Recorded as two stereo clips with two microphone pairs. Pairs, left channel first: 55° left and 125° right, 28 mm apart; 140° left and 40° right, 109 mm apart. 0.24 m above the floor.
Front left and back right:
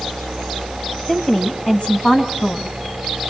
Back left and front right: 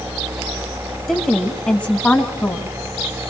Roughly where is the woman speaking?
Ahead left.